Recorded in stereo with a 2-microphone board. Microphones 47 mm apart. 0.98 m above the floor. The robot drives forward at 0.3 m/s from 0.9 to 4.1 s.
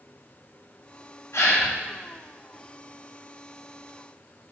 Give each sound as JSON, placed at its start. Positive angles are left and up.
{"t": 1.3, "sound": "a gasp", "side_deg": 85, "distance_m": 1.1}